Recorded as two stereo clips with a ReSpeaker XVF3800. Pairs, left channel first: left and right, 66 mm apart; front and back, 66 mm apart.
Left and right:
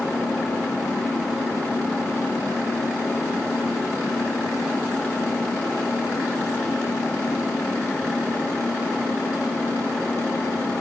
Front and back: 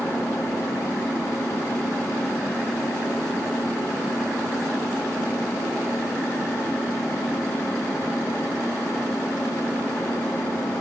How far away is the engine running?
About 8.5 m.